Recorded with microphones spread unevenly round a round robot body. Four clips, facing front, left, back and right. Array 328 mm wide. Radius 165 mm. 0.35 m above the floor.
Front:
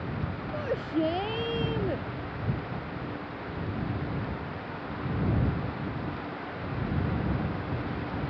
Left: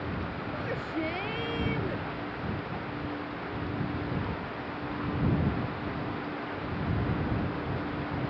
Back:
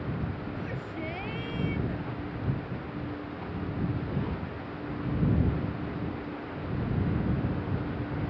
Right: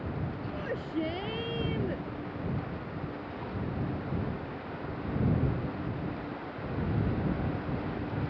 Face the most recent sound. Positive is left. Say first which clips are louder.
# even, front 7 dB
turn(degrees=-5)